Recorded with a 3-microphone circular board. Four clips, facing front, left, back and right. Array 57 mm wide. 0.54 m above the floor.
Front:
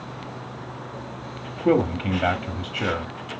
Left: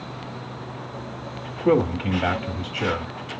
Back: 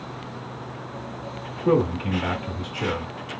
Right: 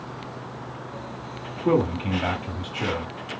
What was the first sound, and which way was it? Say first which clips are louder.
A man speaking: left 2 dB, front 1 dB; 10° left.